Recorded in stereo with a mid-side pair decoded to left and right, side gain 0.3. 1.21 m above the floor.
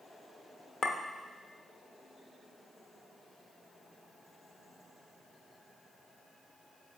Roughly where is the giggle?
No giggle in this recording.